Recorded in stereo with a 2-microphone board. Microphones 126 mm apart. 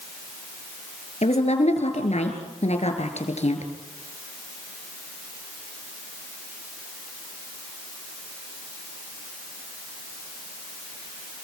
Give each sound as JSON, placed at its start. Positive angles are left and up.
{"t": 1.2, "sound": "a woman speaking", "side_deg": 65, "distance_m": 3.5}